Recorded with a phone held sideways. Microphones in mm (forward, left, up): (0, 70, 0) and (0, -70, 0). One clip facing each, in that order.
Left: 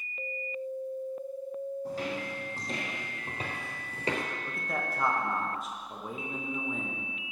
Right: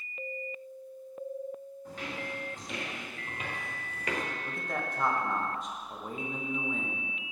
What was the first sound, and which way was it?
Footsteps, 35° left (ahead or behind).